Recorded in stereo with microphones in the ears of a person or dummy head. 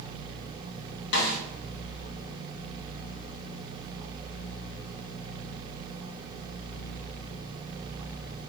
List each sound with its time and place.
1.1 s a snare drum: 55° left (ahead or behind), 0.8 m